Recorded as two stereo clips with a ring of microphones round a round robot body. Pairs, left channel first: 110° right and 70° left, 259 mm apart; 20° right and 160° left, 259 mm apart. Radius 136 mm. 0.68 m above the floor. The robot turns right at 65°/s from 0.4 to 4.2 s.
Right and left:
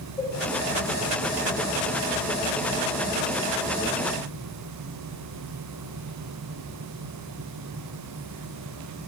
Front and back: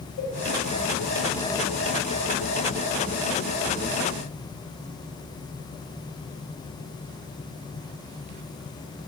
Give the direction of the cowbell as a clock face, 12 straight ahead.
2 o'clock.